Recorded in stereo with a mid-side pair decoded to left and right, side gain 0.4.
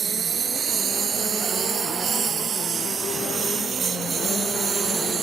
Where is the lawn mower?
60° right; by 5.2 s 55° right.